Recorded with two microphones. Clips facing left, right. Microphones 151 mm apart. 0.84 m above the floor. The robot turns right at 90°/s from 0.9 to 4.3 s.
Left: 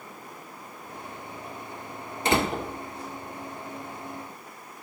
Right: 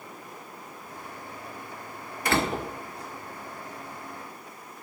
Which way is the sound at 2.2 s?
155° left.